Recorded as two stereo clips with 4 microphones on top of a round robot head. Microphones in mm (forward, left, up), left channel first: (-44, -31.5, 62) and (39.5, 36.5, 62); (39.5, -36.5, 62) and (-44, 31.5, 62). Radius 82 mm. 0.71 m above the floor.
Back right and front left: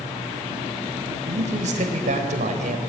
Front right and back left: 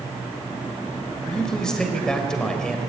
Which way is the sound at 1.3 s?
45° left.